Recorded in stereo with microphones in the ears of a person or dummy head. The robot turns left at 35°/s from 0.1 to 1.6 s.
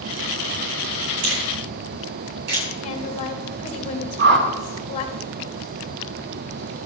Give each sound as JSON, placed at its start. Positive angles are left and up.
{"t": 1.2, "sound": "a finger snap", "side_deg": -70, "distance_m": 8.5}
{"t": 2.8, "sound": "a woman speaking", "side_deg": 40, "distance_m": 2.5}
{"t": 4.2, "sound": "a whoosh", "side_deg": -70, "distance_m": 3.5}